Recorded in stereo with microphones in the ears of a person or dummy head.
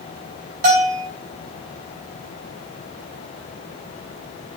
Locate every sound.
0.6 s a bell: 45° right (ahead or behind), 3 m